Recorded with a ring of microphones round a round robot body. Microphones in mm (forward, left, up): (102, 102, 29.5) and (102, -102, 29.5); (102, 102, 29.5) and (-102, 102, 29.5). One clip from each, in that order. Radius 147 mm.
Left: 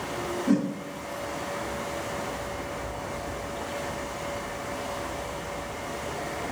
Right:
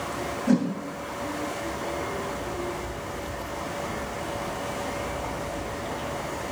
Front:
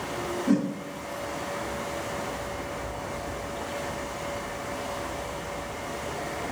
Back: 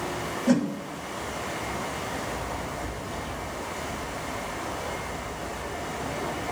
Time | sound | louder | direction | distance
0.5 | a whoosh | right 2 dB, back 2 dB | 160° right | 2 m